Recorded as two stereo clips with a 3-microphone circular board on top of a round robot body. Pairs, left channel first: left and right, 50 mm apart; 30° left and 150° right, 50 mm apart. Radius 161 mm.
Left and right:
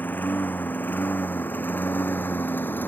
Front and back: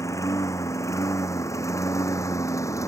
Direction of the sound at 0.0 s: 40° left.